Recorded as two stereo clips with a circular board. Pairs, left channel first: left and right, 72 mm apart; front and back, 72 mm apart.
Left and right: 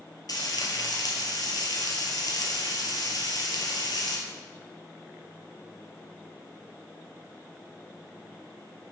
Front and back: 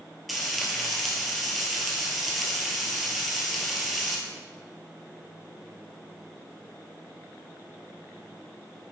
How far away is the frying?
About 1.4 m.